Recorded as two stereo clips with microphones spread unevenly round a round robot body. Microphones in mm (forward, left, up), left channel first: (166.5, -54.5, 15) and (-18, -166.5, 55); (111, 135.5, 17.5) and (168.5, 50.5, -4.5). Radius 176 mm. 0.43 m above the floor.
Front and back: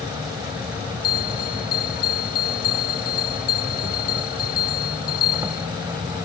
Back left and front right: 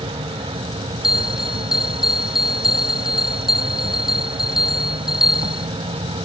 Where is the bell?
30° left.